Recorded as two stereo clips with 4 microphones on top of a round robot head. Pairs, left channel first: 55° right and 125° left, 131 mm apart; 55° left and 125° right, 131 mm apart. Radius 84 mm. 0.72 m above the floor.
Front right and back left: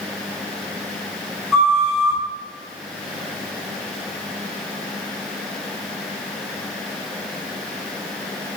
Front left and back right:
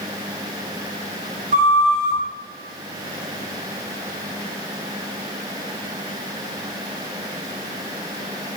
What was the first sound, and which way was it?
A flute, 145° right.